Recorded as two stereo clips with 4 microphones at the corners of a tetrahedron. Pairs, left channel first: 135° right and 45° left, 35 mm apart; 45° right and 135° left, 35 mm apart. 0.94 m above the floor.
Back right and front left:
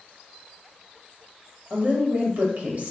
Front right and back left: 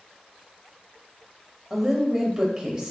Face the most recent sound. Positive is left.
turn(degrees=60)